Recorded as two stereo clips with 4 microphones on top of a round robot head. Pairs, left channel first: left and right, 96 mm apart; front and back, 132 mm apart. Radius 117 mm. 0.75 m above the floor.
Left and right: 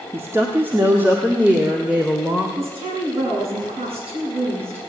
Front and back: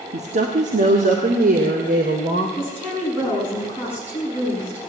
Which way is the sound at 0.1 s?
150° right.